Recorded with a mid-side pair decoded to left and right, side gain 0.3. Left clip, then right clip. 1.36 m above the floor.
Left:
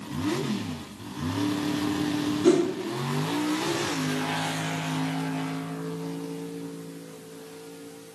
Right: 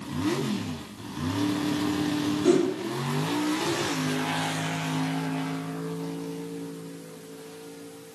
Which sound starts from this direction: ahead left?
A whoosh, at 2.4 s.